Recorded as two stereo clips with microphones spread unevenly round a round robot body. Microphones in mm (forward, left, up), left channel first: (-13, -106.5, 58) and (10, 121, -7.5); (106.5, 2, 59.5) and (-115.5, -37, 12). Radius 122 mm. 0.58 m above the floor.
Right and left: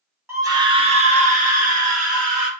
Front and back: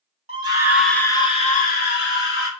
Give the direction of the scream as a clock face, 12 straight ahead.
7 o'clock.